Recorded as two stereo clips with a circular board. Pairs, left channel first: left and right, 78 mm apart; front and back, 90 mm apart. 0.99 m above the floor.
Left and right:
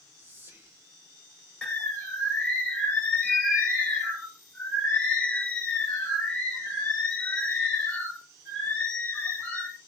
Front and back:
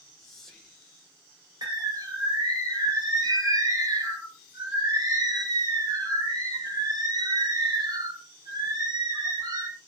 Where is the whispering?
80° right, 0.7 m.